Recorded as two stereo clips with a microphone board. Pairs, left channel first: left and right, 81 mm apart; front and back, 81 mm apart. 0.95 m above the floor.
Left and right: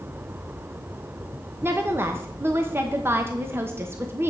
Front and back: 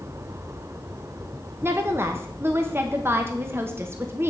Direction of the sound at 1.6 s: 135° right.